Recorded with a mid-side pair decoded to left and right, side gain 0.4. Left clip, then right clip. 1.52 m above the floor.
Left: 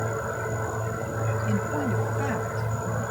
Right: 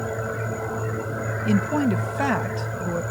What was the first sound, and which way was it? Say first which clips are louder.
A woman speaking: right 8 dB; 65° right.